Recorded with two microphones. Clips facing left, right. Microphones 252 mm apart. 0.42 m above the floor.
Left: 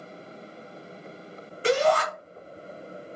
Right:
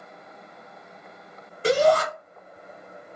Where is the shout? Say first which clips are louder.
Right 3 dB; 45° right (ahead or behind), 1.3 m.